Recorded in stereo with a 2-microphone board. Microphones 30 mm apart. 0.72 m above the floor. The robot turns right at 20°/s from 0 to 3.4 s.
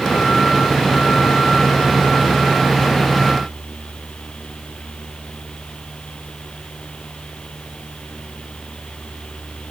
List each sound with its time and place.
Only background noise.